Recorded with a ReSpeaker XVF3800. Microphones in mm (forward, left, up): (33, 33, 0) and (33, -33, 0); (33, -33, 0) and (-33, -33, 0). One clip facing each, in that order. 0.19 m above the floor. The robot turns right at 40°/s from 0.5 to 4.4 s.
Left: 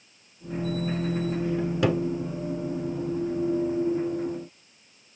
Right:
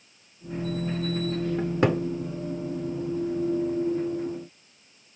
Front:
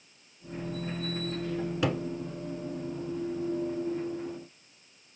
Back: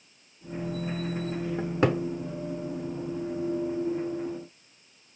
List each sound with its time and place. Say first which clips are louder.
1.6 s a cupboard door: right 2 dB, back 6 dB; 145° right, 0.6 m; by 2.0 s 125° right, 0.6 m